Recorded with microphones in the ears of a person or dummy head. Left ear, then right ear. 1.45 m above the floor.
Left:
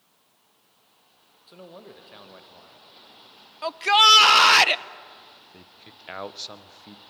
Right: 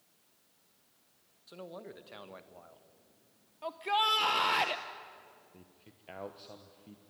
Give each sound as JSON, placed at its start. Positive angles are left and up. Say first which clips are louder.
{"t": 1.5, "sound": "a man speaking", "louder": "left 2 dB", "side_deg": -10, "distance_m": 1.4}
{"t": 3.6, "sound": "a shout", "louder": "left 14 dB", "side_deg": 60, "distance_m": 0.8}
{"t": 5.5, "sound": "a man speaking", "louder": "left 12 dB", "side_deg": 55, "distance_m": 1.2}